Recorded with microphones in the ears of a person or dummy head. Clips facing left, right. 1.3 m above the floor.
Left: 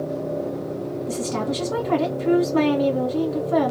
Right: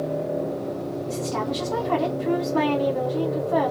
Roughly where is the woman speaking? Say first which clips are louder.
Left 2 dB; left.